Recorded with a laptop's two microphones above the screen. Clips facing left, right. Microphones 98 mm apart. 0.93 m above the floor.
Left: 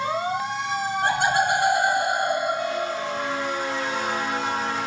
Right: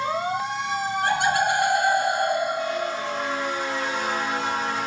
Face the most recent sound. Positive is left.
turn(degrees=60)  # may be behind; listen again after turning